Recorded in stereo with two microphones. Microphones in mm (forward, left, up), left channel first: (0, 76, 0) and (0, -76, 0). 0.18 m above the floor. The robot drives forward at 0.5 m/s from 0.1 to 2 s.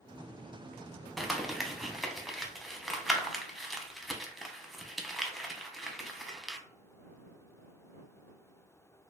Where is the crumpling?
Centre (ahead or behind), 0.5 m.